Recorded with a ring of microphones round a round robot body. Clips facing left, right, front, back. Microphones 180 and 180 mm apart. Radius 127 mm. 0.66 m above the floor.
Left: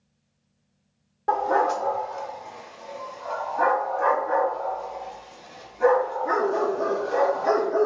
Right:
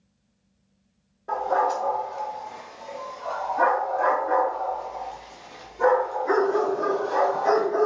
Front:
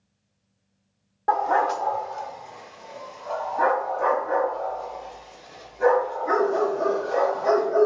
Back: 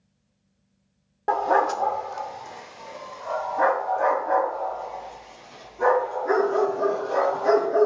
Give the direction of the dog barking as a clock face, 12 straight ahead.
8 o'clock.